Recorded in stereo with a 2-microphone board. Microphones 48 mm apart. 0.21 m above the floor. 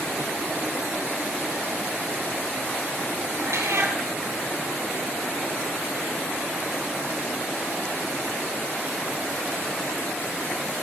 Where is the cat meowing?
65° right (ahead or behind), 3.5 m.